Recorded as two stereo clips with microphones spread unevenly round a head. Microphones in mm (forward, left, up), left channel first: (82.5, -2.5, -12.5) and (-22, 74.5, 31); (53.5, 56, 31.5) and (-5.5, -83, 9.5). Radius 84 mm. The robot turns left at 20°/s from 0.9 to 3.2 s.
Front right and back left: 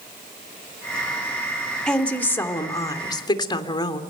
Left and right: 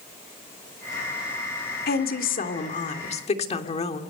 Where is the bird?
I don't hear a bird.